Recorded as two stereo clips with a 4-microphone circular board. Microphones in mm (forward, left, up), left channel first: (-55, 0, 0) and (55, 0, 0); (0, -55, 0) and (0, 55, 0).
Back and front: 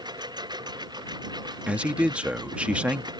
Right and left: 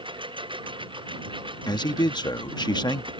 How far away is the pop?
No pop in this recording.